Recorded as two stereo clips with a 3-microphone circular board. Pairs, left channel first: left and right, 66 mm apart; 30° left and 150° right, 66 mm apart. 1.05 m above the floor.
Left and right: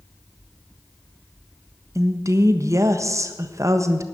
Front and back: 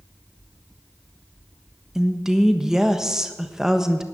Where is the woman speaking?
70° right, 1.3 m.